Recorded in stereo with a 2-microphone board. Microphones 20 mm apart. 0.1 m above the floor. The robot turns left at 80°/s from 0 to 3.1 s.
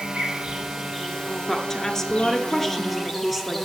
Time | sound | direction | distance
0.0 | an insect | 90° right | 3 m
1.5 | a woman speaking | 20° left (ahead or behind) | 1.2 m